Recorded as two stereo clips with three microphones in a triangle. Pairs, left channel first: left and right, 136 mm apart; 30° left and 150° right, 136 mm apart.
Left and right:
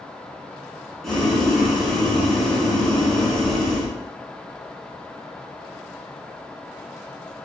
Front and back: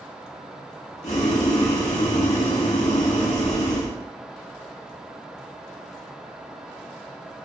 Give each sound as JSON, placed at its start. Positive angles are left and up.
{"t": 1.0, "sound": "boiling", "azimuth_deg": 0, "distance_m": 1.3}